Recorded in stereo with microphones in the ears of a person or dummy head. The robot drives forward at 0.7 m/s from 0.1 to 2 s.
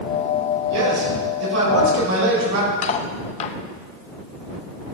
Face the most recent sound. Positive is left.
turn(degrees=35)  # may be behind; listen again after turning